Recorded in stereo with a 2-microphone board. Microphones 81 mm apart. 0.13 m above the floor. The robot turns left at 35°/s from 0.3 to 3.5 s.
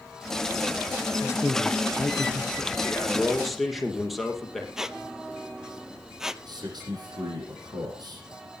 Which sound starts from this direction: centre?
A squeak, at 4.8 s.